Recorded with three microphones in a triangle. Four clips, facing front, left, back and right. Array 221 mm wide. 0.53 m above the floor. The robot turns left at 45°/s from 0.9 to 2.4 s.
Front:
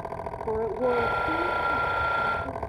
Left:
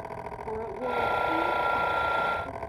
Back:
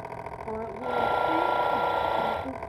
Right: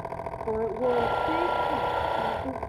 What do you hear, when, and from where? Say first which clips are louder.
0.5 s a woman speaking: right 6 dB, front 7 dB; 25° right, 1.5 m; by 2.6 s 95° right, 1.5 m